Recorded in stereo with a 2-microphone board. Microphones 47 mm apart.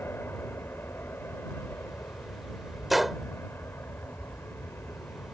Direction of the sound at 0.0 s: 55° left (ahead or behind).